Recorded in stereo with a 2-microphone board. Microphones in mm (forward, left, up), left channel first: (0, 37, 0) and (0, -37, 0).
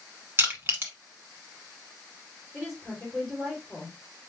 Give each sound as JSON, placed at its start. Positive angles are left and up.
{"t": 0.4, "sound": "crushing", "side_deg": -30, "distance_m": 1.4}
{"t": 2.5, "sound": "a woman speaking", "side_deg": 0, "distance_m": 4.0}